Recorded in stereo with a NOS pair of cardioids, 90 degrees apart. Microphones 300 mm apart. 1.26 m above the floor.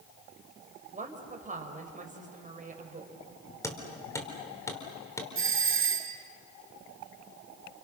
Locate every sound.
0.9 s a woman speaking: 25° right, 5 m
3.6 s hammering: 10° left, 4 m
5.3 s a doorbell: 45° right, 2 m